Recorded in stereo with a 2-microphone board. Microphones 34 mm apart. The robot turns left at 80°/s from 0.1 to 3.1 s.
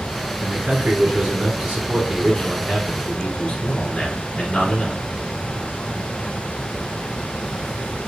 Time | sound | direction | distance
0.4 | a man speaking | 5° left (ahead or behind) | 1.2 m